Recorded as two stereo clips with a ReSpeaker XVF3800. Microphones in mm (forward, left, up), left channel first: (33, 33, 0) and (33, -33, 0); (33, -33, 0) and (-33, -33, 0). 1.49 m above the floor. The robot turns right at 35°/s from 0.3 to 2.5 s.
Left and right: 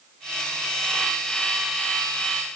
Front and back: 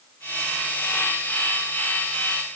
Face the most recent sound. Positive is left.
No sound to turn to.